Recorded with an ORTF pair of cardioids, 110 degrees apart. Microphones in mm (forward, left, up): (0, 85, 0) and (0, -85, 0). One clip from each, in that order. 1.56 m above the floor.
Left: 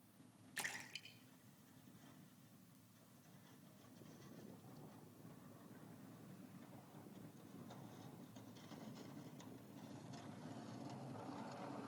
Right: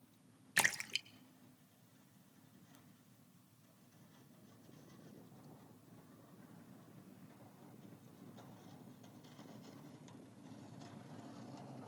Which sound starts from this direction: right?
A splash, at 0.6 s.